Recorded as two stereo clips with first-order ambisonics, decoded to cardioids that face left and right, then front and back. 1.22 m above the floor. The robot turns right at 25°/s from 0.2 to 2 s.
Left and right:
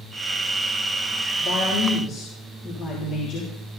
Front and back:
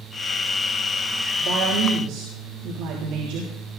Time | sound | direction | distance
1.4 | a woman speaking | 135° left | 3 m